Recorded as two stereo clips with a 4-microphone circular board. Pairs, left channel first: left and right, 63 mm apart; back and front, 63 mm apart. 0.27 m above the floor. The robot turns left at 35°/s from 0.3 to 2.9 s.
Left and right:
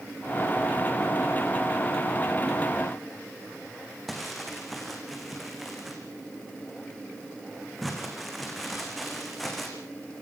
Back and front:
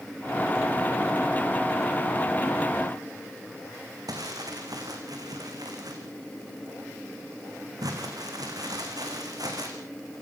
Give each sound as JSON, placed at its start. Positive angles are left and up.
{"t": 4.1, "sound": "crumpling", "azimuth_deg": 0, "distance_m": 4.0}